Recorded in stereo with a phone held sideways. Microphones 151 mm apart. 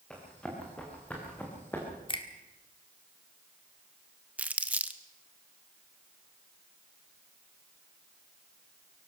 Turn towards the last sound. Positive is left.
turn(degrees=-10)  # may be behind; listen again after turning